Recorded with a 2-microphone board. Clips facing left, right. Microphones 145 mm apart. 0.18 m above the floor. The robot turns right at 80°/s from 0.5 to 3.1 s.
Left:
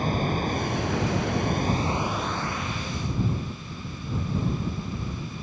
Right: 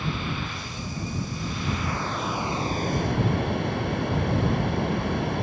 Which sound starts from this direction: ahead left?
Running water, at 0.0 s.